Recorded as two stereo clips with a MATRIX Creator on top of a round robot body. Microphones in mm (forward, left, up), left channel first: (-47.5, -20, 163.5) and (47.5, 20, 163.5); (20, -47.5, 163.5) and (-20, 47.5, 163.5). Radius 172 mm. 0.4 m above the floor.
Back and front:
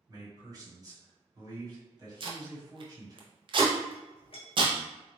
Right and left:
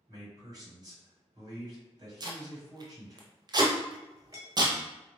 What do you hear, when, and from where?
0.1 s a man speaking: 70° left, 1.8 m
2.2 s tape being pulled: 60° left, 0.8 m
3.9 s a clink: 170° left, 1.6 m